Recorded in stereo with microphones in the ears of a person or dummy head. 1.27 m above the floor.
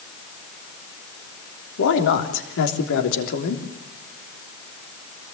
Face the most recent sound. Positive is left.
turn(degrees=65)  # may be behind; listen again after turning